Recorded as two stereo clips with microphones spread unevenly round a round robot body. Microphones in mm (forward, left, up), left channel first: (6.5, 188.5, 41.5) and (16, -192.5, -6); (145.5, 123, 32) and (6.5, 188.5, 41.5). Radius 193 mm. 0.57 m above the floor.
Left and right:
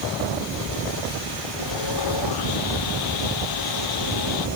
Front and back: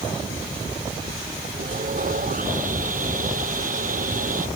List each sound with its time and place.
1.6 s sawing: 125° left